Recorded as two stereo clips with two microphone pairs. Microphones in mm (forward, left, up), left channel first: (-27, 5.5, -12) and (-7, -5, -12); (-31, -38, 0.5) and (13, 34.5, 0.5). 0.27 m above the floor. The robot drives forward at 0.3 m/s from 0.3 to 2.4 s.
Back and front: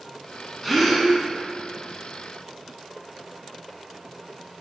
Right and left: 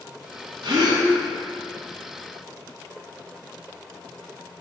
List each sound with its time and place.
0.6 s a gasp: 65° left, 0.7 m; by 1.1 s 75° left, 0.6 m